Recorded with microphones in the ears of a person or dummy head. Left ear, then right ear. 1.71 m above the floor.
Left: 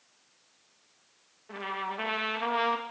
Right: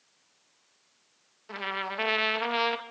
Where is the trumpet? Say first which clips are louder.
Right 2 dB; 40° right (ahead or behind), 2.5 m.